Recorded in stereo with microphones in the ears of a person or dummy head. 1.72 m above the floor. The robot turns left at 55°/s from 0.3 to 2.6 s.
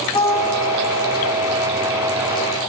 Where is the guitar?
160° left, 4 m; by 1.3 s 100° left, 4 m.